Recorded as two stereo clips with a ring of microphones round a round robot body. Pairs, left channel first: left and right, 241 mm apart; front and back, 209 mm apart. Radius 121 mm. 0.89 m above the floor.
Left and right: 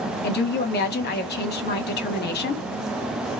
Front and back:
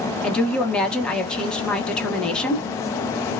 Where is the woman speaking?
85° left, 1.0 m.